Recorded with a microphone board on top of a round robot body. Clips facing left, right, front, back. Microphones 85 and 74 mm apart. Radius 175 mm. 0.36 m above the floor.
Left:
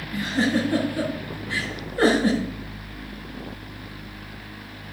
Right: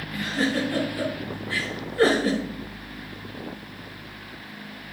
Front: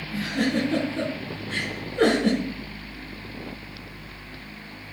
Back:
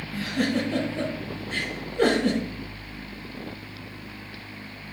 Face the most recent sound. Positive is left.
turn(degrees=20)